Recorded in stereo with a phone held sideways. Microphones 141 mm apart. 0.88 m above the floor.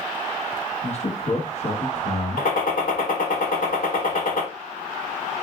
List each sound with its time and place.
0.8 s a man speaking: 50° left (ahead or behind), 0.9 m
2.4 s a gunshot: 80° left, 1.1 m